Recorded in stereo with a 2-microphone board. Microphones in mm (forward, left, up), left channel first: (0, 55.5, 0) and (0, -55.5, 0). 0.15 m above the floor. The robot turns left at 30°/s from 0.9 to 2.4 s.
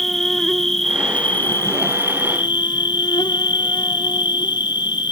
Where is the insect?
175° left, 0.9 m; by 5.1 s 130° left, 0.9 m.